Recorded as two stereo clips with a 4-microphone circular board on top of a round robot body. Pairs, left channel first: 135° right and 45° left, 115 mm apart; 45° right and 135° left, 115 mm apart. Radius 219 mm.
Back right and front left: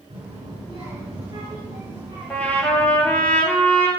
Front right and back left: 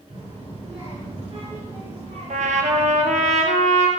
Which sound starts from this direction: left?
A child speaking, at 0.1 s.